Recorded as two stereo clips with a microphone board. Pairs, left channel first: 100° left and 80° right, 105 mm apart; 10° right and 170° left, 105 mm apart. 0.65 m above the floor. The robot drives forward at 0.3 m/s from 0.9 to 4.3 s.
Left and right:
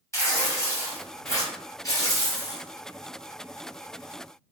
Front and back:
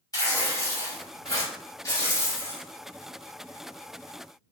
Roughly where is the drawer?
I don't hear a drawer.